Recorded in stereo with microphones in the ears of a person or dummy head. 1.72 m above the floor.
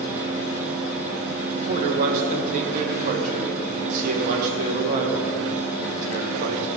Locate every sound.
1.6 s a man speaking: 45° right (ahead or behind), 1.3 m